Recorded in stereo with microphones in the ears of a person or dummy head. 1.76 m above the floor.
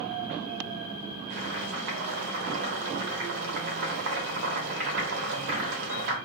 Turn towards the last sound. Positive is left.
turn(degrees=-60)  # may be behind; listen again after turning